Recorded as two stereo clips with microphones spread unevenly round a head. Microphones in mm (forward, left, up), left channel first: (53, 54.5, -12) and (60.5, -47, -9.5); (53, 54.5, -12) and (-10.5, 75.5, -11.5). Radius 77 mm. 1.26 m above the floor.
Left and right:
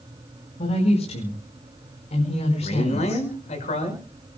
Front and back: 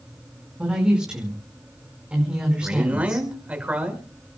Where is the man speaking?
95° left, 6 m.